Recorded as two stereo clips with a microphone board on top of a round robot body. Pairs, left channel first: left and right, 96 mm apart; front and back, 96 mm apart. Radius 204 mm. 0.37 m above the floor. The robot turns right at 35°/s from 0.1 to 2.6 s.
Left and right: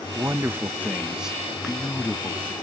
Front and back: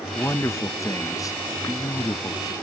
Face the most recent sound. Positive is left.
turn(degrees=35)